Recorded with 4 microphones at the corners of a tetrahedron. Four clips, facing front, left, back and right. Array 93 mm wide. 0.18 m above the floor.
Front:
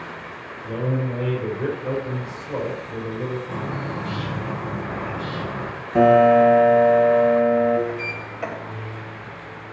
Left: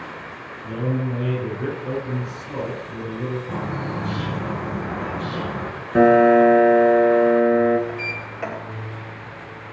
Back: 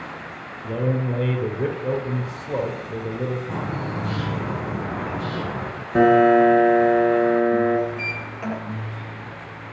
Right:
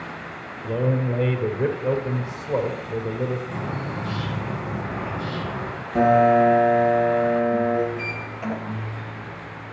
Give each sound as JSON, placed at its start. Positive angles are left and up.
{"t": 0.6, "sound": "a man speaking", "azimuth_deg": -125, "distance_m": 4.5}
{"t": 3.5, "sound": "a bird", "azimuth_deg": 140, "distance_m": 4.5}
{"t": 6.0, "sound": "a piano", "azimuth_deg": 120, "distance_m": 2.0}
{"t": 7.9, "sound": "a sliding door", "azimuth_deg": 60, "distance_m": 3.5}